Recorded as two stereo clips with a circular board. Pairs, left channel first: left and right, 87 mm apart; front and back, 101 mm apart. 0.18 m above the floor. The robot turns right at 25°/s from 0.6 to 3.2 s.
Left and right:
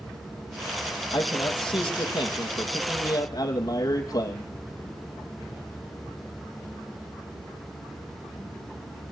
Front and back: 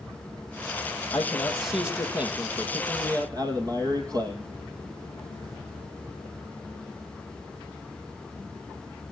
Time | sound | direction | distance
1.1 | a man speaking | 80° left | 5 m